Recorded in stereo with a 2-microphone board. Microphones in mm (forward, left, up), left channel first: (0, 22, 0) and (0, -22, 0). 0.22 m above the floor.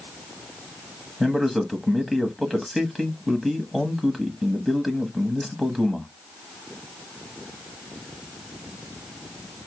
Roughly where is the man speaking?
Centre.